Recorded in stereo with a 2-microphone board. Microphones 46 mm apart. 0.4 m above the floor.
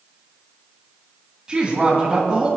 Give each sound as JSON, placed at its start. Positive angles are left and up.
{"t": 1.5, "sound": "a woman speaking", "side_deg": -20, "distance_m": 2.5}